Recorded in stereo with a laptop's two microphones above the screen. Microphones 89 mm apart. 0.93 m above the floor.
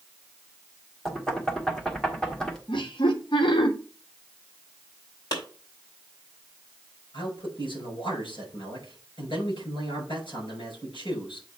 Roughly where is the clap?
Left.